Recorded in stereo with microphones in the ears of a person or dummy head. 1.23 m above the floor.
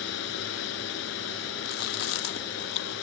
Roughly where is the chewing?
Left.